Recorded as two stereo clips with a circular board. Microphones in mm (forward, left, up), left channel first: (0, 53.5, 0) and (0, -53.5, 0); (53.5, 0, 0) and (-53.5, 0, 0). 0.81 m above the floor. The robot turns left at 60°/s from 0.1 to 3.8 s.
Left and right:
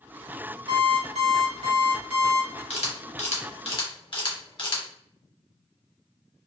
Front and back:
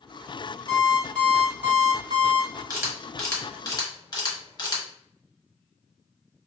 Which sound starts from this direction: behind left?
A camera shutter, at 2.7 s.